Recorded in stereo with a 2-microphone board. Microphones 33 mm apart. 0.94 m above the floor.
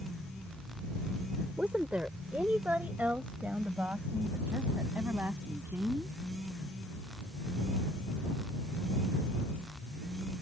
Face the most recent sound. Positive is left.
turn(degrees=-60)  # may be behind; listen again after turning